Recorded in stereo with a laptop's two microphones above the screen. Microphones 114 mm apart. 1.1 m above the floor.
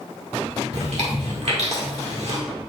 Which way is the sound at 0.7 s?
65° right (ahead or behind).